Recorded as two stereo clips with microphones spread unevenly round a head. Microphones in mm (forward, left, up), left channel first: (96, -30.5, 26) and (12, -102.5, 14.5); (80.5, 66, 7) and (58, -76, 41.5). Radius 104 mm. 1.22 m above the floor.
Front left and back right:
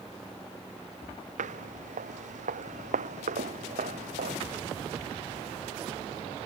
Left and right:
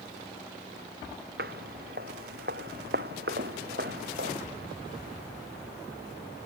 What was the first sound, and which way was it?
Footsteps, 145° right.